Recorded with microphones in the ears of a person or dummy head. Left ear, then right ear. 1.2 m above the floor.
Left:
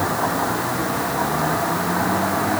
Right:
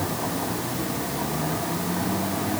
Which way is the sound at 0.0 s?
40° left (ahead or behind).